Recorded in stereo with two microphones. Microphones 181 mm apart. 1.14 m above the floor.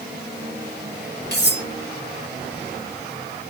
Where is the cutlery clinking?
65° left (ahead or behind), 1.0 m.